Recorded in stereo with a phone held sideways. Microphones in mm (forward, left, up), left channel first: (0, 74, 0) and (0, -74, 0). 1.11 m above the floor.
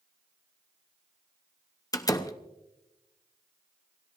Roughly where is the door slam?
Left.